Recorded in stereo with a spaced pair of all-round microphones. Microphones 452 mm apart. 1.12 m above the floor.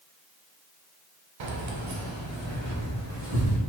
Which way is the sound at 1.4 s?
85° right.